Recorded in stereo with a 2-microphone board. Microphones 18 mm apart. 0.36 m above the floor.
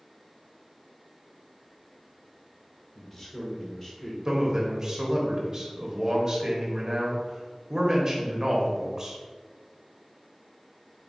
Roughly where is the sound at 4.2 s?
Right.